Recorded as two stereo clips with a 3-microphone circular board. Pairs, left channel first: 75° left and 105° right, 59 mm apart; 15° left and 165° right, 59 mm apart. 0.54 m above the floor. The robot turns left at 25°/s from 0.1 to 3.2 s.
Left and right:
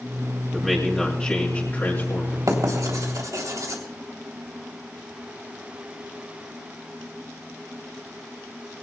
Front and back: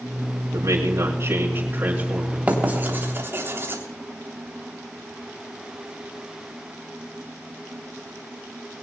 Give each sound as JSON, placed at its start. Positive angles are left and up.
{"t": 0.5, "sound": "a man speaking", "azimuth_deg": 160, "distance_m": 5.0}
{"t": 2.5, "sound": "writing", "azimuth_deg": -100, "distance_m": 3.5}